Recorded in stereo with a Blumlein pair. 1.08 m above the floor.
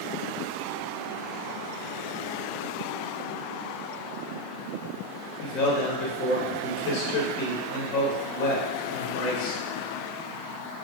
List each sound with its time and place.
5.4 s a man speaking: 35° left, 1.2 m